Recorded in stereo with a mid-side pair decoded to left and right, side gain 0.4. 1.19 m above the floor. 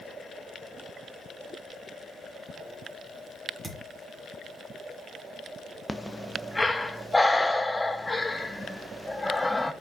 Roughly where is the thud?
Ahead.